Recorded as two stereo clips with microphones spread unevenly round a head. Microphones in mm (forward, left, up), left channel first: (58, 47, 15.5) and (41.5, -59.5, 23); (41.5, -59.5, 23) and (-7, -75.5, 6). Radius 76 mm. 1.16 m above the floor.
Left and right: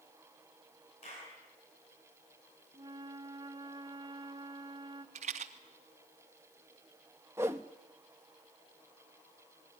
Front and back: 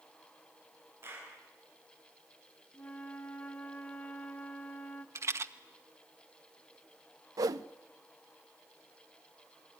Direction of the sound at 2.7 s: 45° right.